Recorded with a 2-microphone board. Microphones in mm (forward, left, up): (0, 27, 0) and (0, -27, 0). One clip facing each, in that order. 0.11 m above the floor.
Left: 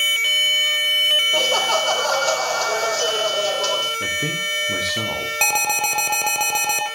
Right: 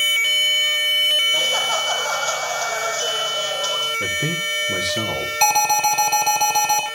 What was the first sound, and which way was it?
Laughter, 60° left (ahead or behind).